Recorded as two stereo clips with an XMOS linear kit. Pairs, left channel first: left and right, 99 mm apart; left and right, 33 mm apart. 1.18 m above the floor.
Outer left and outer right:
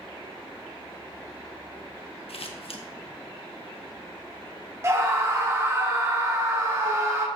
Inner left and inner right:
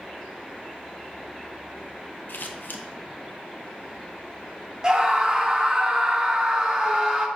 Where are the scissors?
75° left (ahead or behind), 0.9 m.